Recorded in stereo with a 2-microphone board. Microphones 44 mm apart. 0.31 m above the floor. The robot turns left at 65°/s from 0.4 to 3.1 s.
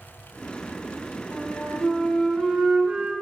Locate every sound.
1.3 s a flute: 60° left, 1.1 m; by 3.1 s 55° right, 1.1 m